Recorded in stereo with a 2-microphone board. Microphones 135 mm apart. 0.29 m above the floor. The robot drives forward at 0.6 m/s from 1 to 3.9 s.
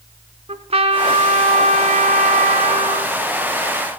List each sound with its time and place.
0.5 s a trumpet: 50° right (ahead or behind), 1.0 m